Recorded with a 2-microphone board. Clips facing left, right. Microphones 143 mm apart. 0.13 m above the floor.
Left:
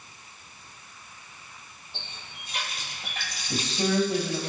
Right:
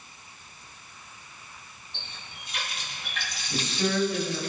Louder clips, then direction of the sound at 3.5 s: Left 2 dB; 35° left (ahead or behind).